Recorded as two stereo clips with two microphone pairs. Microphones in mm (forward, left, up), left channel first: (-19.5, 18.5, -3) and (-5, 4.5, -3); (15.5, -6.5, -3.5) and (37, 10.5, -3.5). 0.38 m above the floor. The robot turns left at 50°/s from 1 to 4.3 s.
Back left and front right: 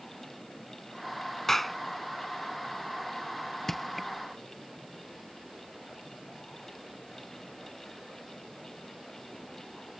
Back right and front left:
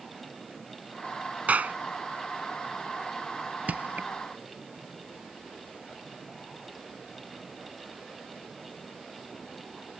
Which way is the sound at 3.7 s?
65° left.